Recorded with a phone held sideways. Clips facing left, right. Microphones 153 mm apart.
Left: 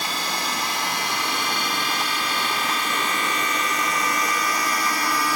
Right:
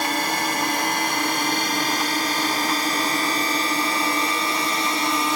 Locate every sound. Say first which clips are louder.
0.0 s a drone: right 5 dB; 60° right (ahead or behind); by 5.4 s 25° right (ahead or behind)